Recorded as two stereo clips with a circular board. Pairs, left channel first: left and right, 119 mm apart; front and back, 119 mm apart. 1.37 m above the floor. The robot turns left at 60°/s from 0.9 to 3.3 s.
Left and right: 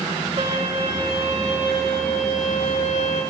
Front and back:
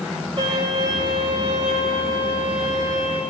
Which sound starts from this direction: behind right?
A violin, at 0.4 s.